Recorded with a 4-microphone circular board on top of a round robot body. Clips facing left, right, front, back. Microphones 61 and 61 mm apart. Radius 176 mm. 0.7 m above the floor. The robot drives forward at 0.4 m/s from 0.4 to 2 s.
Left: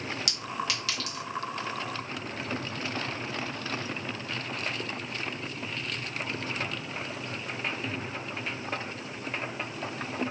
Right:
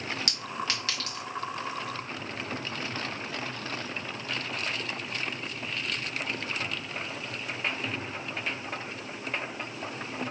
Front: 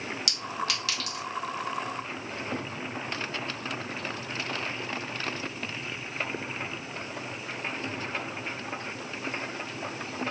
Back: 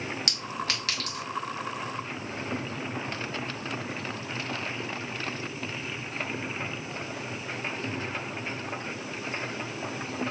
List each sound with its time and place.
0.3 s a clink: 135° right, 1.7 m; by 1.2 s 145° right, 2.0 m